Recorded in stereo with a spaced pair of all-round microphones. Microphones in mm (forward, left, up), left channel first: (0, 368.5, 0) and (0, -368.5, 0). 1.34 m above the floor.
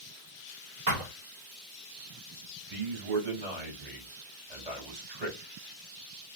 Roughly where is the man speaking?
Right.